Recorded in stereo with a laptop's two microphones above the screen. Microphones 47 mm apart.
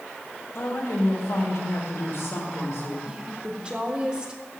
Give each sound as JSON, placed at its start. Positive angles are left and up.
{"t": 0.5, "sound": "a woman speaking", "side_deg": 70, "distance_m": 4.5}
{"t": 3.0, "sound": "a woman speaking", "side_deg": -20, "distance_m": 3.5}